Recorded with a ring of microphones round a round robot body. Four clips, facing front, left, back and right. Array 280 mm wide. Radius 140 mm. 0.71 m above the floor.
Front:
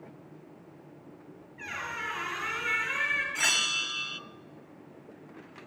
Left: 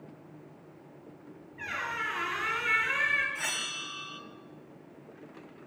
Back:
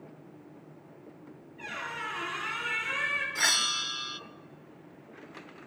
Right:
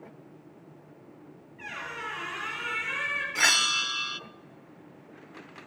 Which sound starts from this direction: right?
A bell, at 3.4 s.